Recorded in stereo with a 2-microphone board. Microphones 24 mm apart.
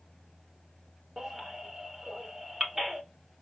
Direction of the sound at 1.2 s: 15° right (ahead or behind).